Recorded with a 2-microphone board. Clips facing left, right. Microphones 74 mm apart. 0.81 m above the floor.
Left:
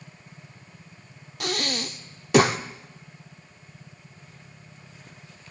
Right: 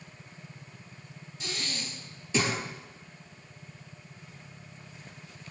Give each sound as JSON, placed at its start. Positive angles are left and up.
{"t": 1.4, "sound": "breathing", "side_deg": 65, "distance_m": 0.6}